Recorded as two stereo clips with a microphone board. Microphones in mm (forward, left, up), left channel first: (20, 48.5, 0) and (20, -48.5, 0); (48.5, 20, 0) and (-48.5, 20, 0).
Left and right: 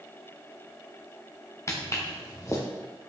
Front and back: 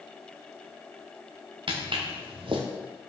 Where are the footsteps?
150° left, 1.5 m.